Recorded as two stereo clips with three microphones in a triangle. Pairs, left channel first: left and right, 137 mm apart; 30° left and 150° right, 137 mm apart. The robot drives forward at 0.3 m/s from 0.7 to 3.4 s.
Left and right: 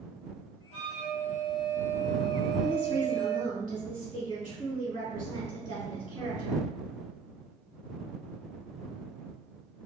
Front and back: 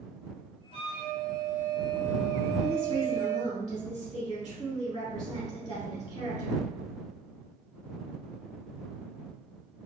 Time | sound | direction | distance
0.7 | a flute | 70° left | 1.3 m
2.6 | a woman speaking | 55° left | 1.6 m